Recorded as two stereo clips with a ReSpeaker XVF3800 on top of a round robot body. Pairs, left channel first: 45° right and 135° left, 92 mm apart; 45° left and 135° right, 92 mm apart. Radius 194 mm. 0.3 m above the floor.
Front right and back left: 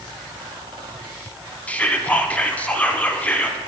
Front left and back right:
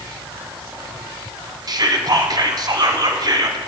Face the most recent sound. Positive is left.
turn(degrees=-115)